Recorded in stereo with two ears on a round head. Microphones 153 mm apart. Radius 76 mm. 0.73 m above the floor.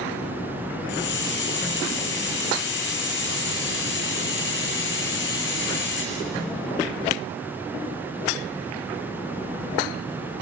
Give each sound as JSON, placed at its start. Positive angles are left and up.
{"t": 0.9, "sound": "a hiss", "side_deg": 70, "distance_m": 4.5}